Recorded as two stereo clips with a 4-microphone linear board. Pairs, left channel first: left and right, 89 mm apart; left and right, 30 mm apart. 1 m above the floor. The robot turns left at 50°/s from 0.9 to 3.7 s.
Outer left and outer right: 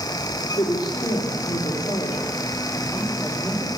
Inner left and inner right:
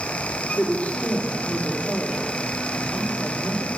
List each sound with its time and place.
0.6 s a woman speaking: 115° left, 3.5 m; by 3.7 s 25° right, 3.5 m